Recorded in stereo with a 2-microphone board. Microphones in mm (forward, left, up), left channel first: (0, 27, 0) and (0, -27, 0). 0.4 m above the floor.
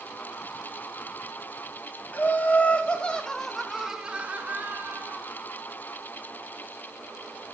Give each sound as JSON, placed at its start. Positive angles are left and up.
{"t": 2.1, "sound": "laughter", "side_deg": 35, "distance_m": 3.0}